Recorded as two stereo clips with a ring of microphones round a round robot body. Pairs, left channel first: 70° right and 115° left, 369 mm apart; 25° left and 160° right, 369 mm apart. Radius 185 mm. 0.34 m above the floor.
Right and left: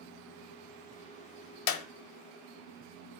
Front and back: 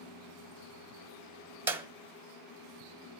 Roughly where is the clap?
Right.